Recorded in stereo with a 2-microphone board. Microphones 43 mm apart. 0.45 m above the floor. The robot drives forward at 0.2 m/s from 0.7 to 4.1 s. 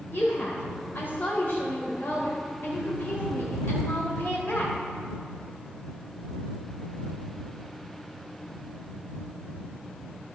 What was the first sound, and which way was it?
A woman speaking, 55° left (ahead or behind).